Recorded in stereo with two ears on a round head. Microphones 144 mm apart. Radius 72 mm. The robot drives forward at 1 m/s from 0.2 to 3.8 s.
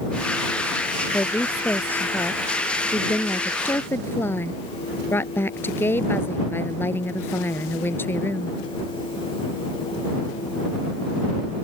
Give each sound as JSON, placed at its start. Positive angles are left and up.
{"t": 1.1, "sound": "a woman speaking", "side_deg": 10}